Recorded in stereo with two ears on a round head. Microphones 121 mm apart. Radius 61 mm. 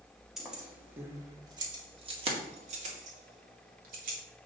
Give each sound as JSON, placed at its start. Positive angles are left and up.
{"t": 0.4, "sound": "keys jangling", "side_deg": -5, "distance_m": 2.0}